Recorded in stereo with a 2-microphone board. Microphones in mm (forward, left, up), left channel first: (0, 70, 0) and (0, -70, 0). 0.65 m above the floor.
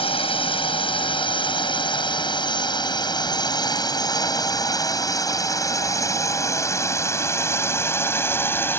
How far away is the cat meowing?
No cat meowing in this recording.